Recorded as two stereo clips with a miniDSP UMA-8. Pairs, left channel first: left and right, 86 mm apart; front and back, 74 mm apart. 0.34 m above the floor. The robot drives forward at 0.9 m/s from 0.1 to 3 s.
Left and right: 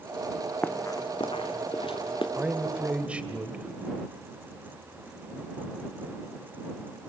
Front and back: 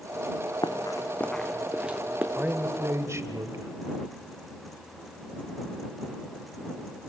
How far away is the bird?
I don't hear a bird.